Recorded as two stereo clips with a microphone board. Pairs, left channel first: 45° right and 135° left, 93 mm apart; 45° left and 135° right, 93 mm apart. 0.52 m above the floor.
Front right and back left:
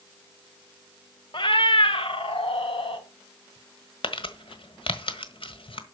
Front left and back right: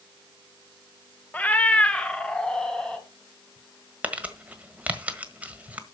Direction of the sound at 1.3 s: 25° right.